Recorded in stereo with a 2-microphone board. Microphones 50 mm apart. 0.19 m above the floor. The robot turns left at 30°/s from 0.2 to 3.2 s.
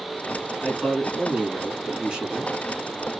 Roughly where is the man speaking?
Ahead left.